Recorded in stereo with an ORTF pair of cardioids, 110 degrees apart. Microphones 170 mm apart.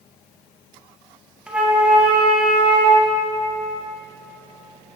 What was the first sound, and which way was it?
A flute, 5° right.